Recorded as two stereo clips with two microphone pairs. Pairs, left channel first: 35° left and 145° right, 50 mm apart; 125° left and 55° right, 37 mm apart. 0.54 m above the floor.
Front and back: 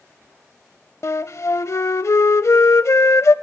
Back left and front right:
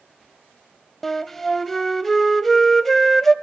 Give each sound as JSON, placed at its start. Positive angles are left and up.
{"t": 1.0, "sound": "a flute", "azimuth_deg": 40, "distance_m": 0.5}